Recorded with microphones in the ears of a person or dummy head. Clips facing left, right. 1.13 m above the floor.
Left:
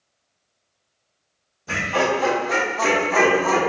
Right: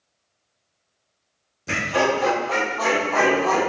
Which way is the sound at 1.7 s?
25° right (ahead or behind).